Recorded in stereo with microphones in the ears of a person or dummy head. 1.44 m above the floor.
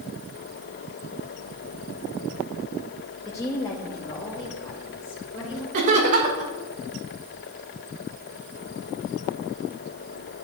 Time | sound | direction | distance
3.2 | a woman speaking | 20° left (ahead or behind) | 1.0 m
5.7 | laughter | 55° right (ahead or behind) | 1.5 m